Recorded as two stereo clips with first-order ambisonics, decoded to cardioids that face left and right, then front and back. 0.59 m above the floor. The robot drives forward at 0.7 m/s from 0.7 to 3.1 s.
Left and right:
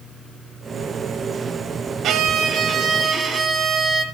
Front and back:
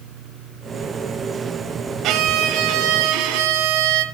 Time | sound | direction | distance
2.0 | a violin | 140° right | 0.9 m